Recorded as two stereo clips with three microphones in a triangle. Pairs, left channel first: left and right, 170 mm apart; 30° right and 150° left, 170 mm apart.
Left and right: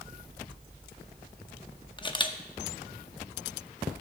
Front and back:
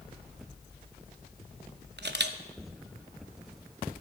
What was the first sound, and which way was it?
A camera shutter, 150° left.